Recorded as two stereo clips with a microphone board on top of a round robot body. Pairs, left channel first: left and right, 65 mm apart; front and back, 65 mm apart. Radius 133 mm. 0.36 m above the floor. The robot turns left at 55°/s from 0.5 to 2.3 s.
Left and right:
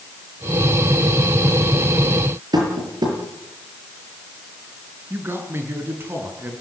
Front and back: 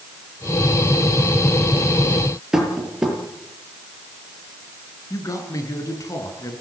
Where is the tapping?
100° right, 7 m.